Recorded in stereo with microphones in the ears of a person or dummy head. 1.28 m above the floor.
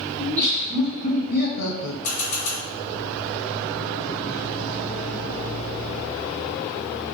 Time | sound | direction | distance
0.2 | laughter | 25° left (ahead or behind) | 1.4 m
2.0 | a camera shutter | 55° left (ahead or behind) | 1.1 m